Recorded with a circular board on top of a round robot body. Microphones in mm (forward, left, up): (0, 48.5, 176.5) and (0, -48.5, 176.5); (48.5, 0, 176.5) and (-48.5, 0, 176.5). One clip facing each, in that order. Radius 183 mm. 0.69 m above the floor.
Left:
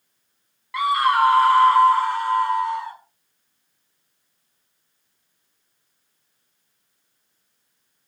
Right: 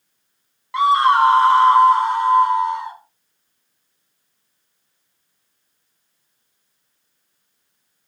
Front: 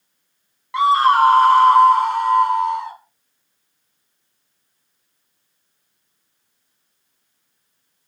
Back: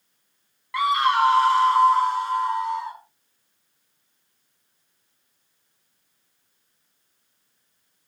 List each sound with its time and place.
0.7 s a scream: 50° right, 0.8 m; by 3.0 s 20° right, 2.5 m